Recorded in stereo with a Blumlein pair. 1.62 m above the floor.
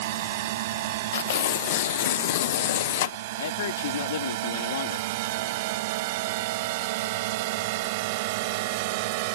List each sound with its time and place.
0.0 s a drone: 55° right; by 9.4 s 50° right
1.1 s tearing paper: 55° left
3.4 s a man speaking: 60° left